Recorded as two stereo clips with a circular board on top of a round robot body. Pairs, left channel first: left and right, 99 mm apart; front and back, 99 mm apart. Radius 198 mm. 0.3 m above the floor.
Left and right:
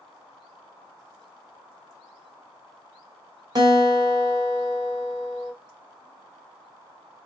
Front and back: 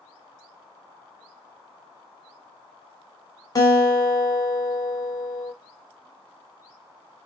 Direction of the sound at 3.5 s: 45° right.